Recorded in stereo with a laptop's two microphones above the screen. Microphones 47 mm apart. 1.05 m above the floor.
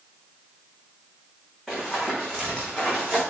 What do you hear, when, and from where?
1.7 s running footsteps: 5° left (ahead or behind), 5.5 m; by 3.2 s 10° left (ahead or behind), 6.5 m